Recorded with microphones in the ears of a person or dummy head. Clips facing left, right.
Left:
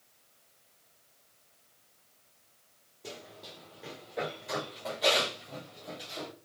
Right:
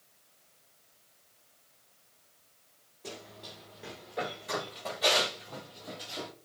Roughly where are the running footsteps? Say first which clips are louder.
Right 1 dB; centre.